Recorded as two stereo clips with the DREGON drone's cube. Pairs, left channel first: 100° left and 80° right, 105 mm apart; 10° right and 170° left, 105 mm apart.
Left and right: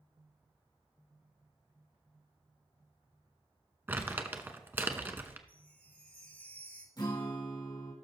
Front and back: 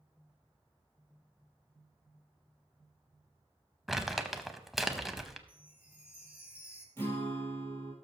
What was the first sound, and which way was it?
Crumpling, 105° right.